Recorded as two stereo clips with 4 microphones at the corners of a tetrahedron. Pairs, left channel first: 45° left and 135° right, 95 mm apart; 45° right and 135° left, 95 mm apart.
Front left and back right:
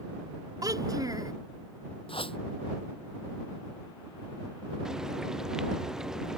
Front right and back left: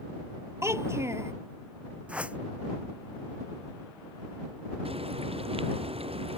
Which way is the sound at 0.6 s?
170° right.